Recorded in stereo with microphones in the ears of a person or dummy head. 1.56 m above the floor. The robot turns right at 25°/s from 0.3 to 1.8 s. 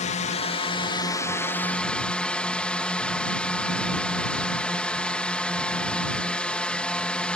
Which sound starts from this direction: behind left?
A drone, at 0.0 s.